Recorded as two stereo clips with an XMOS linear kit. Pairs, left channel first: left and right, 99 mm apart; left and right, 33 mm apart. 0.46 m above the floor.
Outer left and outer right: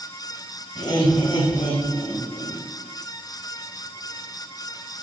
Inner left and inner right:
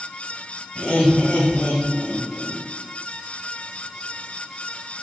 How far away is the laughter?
About 2.5 m.